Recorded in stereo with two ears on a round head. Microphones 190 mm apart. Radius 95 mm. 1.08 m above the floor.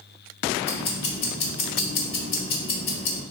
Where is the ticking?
50° left (ahead or behind), 1.7 m.